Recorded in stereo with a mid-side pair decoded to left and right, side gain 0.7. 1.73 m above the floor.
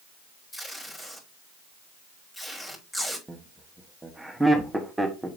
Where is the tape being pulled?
15° left, 3 m.